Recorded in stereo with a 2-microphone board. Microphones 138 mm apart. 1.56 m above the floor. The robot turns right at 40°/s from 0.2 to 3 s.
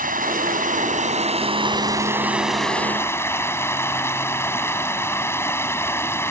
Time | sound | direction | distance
0.0 | running water | 95° right | ?